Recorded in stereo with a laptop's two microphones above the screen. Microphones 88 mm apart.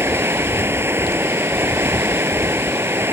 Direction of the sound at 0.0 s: 25° right (ahead or behind).